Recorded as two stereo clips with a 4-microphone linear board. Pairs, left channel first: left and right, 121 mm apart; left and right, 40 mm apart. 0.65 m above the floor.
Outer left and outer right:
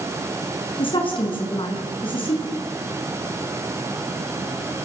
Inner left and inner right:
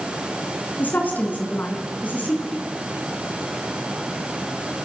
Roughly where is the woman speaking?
Left.